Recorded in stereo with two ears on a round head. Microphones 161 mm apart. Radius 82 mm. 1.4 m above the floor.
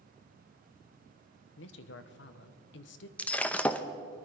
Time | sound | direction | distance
1.6 | a woman speaking | 75° left (ahead or behind) | 1.1 m
3.2 | breaking glass | 5° left (ahead or behind) | 0.6 m